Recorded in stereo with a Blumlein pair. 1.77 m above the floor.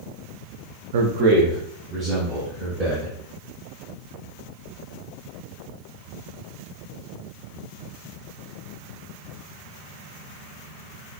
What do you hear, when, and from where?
0.9 s a man speaking: 55° right, 0.6 m; by 3.1 s 15° right, 2.5 m